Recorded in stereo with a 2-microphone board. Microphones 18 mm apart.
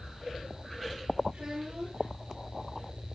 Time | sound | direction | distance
1.3 | a child speaking | 75° right (ahead or behind) | 3.5 m